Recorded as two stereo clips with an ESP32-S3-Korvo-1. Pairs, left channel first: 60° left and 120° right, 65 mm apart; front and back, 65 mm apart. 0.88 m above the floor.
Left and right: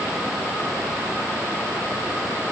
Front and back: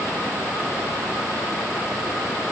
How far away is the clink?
No clink in this recording.